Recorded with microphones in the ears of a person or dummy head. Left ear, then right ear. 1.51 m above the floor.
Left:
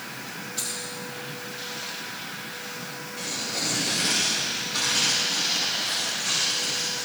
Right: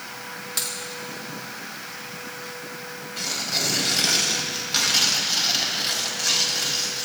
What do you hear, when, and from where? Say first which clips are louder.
0.6 s a dropped coin: right 4 dB; 45° right (ahead or behind), 2 m
3.2 s tearing paper: right 5 dB; 55° right (ahead or behind), 4 m